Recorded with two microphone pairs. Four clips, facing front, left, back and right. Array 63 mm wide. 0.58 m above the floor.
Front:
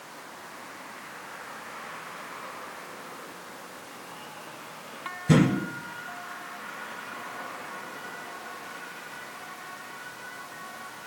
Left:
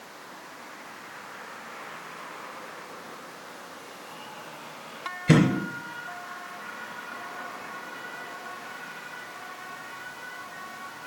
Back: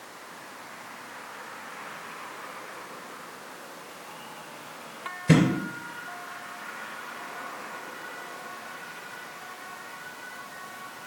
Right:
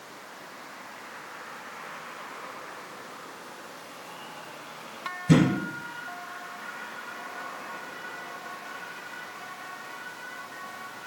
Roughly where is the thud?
Behind left.